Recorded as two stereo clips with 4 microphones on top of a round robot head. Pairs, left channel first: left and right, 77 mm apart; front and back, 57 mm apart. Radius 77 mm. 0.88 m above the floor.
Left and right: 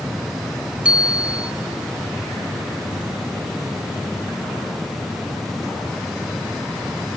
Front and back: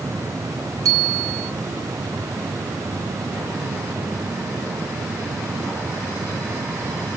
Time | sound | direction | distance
0.8 | a bicycle bell | 165° right | 3 m